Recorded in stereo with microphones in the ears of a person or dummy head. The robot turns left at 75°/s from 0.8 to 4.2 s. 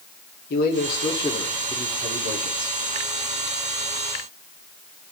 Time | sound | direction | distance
0.5 | a man speaking | 60° left | 2 m